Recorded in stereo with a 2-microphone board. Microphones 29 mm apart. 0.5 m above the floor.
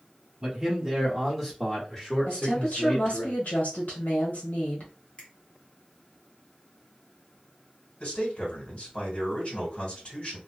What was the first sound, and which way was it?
A man speaking, 25° right (ahead or behind).